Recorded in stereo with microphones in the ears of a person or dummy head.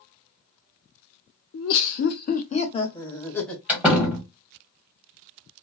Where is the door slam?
5° right (ahead or behind), 1.2 m.